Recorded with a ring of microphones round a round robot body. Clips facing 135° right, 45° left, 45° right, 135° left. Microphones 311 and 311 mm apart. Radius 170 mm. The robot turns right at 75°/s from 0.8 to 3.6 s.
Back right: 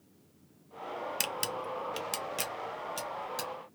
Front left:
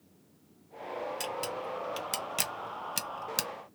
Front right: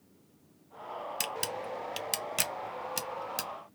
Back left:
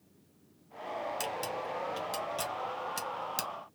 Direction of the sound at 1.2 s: 110° right.